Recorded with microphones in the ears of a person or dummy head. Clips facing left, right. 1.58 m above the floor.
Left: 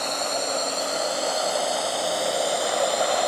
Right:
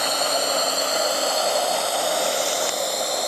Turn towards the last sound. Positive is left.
turn(degrees=10)  # may be behind; listen again after turning